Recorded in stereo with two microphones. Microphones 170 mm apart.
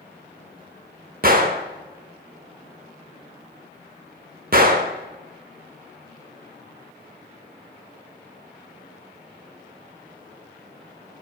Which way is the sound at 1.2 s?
55° right (ahead or behind).